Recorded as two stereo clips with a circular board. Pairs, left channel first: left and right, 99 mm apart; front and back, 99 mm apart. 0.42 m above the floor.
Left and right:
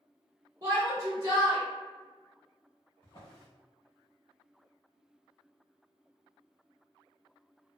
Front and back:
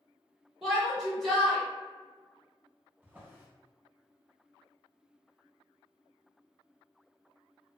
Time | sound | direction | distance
0.6 | a shout | 100° right | 0.8 m
3.0 | a drawer | 110° left | 1.2 m